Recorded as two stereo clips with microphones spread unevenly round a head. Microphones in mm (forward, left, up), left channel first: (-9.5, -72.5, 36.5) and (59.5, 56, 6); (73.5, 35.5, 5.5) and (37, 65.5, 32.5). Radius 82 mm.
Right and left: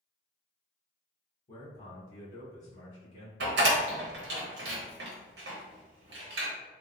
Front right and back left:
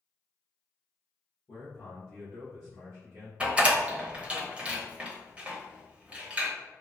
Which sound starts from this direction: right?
A man speaking, at 1.5 s.